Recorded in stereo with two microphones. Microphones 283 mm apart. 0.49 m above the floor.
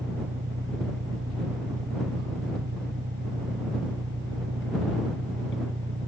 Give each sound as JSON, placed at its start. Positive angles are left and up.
{"t": 0.0, "sound": "an engine running", "side_deg": -35}